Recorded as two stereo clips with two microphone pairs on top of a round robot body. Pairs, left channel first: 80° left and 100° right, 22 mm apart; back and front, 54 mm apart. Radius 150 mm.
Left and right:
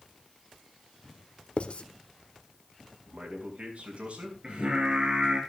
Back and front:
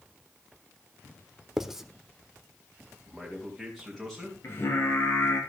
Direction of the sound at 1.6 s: 95° left.